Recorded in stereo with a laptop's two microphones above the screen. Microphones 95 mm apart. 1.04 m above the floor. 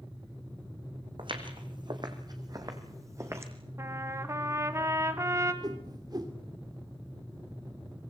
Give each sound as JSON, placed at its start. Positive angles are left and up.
{"t": 1.2, "sound": "footsteps", "side_deg": -60, "distance_m": 4.0}
{"t": 3.8, "sound": "a trumpet", "side_deg": -30, "distance_m": 1.7}
{"t": 5.6, "sound": "a whoosh", "side_deg": -45, "distance_m": 2.5}